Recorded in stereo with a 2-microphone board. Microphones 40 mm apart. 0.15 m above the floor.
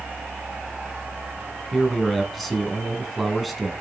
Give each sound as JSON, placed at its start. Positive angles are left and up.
{"t": 1.7, "sound": "a man speaking", "side_deg": 0, "distance_m": 1.6}